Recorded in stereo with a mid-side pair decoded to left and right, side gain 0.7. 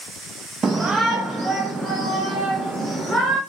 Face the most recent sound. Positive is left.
turn(degrees=-5)